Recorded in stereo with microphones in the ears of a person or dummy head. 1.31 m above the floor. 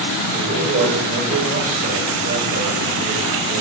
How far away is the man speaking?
About 8 m.